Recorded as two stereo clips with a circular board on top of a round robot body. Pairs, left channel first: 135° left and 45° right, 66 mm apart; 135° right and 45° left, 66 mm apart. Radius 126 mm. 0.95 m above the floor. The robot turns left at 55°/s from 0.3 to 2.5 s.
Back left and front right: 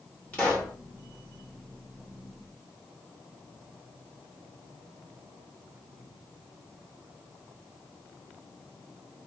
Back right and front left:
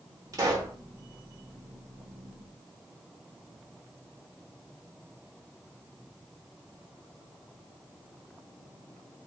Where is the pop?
70° left, 1.2 m; by 0.8 s 45° left, 1.2 m.